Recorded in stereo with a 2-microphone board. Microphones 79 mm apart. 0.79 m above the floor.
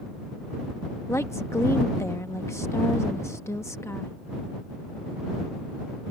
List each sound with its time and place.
1.1 s a woman speaking: 35° left (ahead or behind)